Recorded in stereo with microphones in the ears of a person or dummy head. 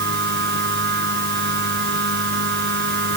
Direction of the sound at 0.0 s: 55° right (ahead or behind).